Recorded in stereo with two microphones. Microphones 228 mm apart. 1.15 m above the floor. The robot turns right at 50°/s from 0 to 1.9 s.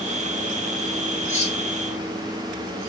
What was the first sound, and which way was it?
Cutlery clinking, 35° left (ahead or behind).